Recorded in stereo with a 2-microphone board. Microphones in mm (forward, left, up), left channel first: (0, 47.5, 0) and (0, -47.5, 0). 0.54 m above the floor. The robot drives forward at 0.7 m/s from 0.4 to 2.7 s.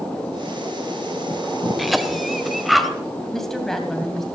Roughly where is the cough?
Centre.